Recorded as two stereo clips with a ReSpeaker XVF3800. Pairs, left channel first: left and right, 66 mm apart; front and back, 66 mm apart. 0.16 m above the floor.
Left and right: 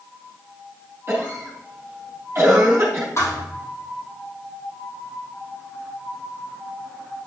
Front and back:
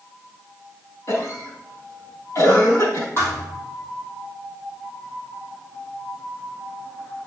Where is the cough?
40° right, 4 m.